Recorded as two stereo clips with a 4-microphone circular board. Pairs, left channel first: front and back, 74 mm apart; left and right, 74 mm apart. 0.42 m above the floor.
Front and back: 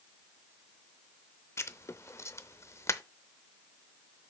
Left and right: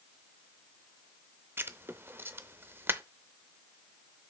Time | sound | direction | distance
1.6 | writing | 40° right | 0.5 m